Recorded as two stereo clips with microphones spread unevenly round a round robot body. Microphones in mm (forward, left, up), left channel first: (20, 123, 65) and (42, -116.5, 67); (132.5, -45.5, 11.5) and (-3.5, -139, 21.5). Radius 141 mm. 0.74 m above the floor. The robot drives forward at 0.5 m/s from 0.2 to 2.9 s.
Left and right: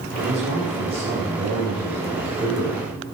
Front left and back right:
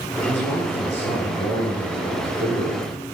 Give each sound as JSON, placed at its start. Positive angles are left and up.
{"t": 0.3, "sound": "a man speaking", "azimuth_deg": -155, "distance_m": 10.0}